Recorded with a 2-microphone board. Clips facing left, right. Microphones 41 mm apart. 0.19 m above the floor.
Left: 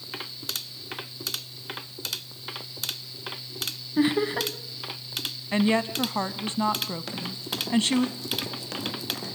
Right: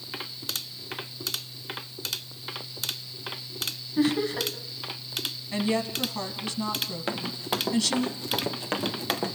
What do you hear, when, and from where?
4.0 s laughter: 25° left (ahead or behind), 1.1 m
5.5 s a woman speaking: 35° left (ahead or behind), 1.1 m
7.1 s running footsteps: 30° right (ahead or behind), 3 m; by 9.3 s 35° right (ahead or behind), 4.5 m